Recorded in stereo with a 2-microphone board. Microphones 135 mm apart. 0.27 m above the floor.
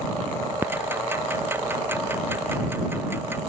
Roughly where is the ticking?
Centre.